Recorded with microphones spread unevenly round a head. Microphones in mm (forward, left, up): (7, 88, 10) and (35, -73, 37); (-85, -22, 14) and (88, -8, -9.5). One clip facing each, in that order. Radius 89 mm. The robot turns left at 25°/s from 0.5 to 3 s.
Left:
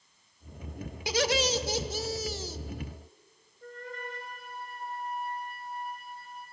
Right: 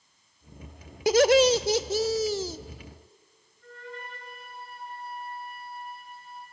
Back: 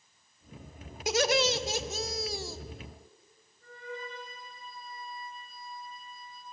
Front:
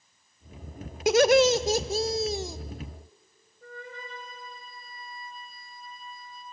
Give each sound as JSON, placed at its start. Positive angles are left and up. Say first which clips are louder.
{"t": 1.1, "sound": "laughter", "louder": "right 10 dB, front 9 dB", "azimuth_deg": -35, "distance_m": 0.6}
{"t": 3.6, "sound": "a flute", "louder": "left 1 dB, back 1 dB", "azimuth_deg": 50, "distance_m": 3.5}